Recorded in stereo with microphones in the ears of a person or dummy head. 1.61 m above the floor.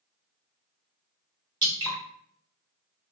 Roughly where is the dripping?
Right.